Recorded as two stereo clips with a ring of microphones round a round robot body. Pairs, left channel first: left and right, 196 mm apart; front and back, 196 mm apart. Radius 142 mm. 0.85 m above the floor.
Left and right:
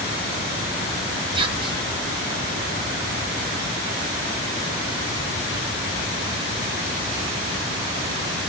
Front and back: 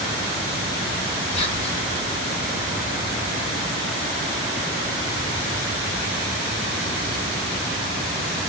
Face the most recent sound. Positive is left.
turn(degrees=-40)